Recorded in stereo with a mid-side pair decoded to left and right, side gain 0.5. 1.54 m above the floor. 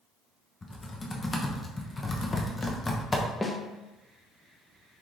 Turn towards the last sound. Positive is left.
turn(degrees=15)